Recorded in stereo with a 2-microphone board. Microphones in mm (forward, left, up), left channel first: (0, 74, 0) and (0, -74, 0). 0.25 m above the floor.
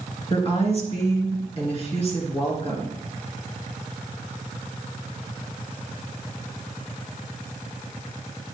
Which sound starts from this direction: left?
A woman speaking, at 0.3 s.